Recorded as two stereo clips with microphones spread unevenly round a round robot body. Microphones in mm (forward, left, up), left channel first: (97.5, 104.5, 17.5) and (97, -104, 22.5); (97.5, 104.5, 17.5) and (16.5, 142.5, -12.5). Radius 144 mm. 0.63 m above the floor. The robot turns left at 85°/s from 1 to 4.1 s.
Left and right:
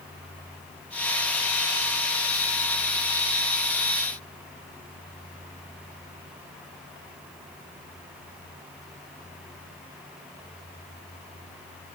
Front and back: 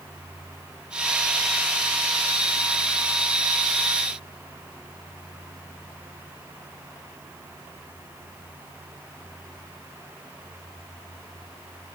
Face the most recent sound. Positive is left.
No sound to turn to.